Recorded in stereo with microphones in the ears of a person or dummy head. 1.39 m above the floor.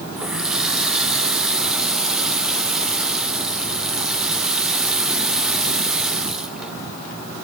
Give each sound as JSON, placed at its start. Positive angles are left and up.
{"t": 0.2, "sound": "a running tap", "side_deg": -5, "distance_m": 0.9}